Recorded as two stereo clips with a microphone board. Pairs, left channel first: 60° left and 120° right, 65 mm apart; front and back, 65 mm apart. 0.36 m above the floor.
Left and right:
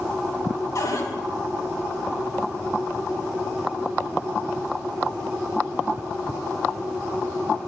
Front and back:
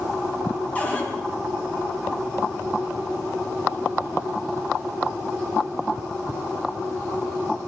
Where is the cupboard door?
60° left, 3 m.